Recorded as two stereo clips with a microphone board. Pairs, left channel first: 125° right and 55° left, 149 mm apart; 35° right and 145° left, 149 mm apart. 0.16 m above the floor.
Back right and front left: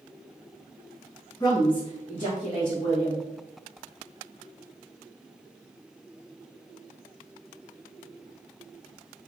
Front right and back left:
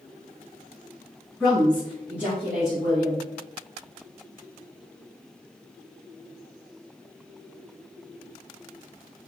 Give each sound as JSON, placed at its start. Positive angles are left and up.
{"t": 1.4, "sound": "a woman speaking", "azimuth_deg": -115, "distance_m": 1.2}